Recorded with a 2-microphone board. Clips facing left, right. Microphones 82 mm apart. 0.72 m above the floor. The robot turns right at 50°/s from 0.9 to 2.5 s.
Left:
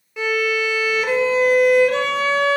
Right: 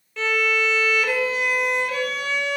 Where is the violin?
15° left, 1.3 m; by 2.6 s 95° left, 1.3 m.